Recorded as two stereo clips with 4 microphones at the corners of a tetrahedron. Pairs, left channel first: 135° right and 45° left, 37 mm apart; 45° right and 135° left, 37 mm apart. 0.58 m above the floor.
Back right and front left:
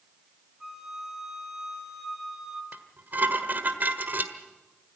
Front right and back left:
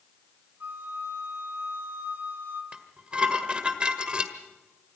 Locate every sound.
0.6 s a flute: 125° left, 2.5 m
2.7 s dishes clattering: 75° left, 1.6 m